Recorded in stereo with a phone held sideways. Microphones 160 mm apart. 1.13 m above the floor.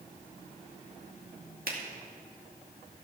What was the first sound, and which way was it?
A finger snap, 70° right (ahead or behind).